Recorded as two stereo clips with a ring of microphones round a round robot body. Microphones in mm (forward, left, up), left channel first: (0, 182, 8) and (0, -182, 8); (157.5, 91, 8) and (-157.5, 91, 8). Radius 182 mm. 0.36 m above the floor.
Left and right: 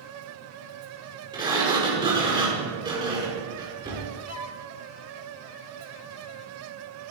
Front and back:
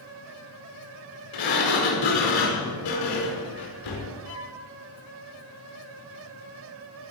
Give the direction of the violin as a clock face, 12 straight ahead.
12 o'clock.